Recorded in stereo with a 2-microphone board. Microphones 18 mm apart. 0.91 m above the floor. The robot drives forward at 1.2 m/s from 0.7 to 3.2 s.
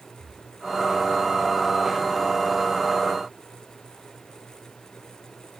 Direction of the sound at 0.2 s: 15° left (ahead or behind).